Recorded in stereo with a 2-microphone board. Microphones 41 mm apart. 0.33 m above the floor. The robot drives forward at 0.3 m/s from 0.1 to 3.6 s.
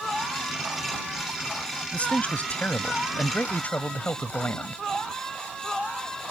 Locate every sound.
1.9 s a man speaking: 35° left (ahead or behind); by 4.8 s 40° left (ahead or behind)